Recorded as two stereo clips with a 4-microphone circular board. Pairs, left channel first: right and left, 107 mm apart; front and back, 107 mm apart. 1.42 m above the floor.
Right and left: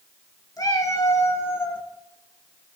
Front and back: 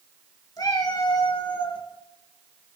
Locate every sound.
0.6 s a cat meowing: 40° right, 2.5 m; by 1.8 s 20° right, 2.5 m